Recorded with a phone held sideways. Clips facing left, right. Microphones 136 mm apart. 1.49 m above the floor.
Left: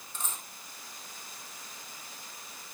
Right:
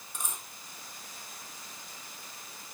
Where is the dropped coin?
15° right (ahead or behind), 2 m.